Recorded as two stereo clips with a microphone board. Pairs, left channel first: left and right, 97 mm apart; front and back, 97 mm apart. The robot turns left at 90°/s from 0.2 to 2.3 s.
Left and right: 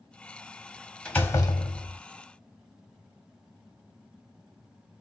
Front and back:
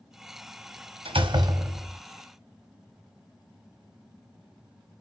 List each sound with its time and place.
1.1 s a door slam: 170° left, 0.9 m; by 2.0 s 85° left, 0.9 m